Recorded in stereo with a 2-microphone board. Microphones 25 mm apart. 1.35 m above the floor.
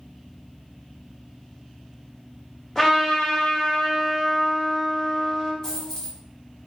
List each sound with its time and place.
2.8 s a trumpet: 20° left (ahead or behind), 1.2 m
5.6 s a dropped coin: 25° left (ahead or behind), 1.4 m